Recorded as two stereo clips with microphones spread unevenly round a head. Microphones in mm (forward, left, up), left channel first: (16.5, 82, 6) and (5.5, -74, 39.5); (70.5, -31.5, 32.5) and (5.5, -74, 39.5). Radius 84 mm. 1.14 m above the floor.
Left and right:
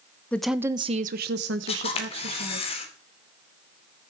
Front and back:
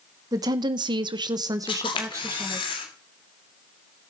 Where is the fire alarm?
No fire alarm in this recording.